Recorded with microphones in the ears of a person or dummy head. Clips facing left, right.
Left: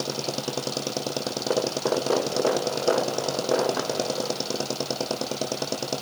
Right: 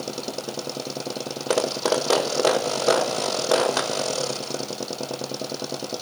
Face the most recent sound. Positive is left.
No sound to turn to.